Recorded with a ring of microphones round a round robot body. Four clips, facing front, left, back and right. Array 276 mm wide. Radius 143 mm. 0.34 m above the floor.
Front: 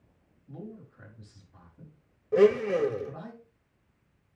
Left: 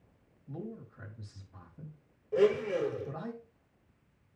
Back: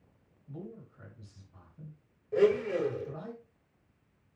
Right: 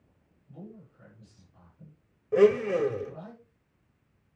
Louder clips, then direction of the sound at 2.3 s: Right 6 dB, front 4 dB; 55° right.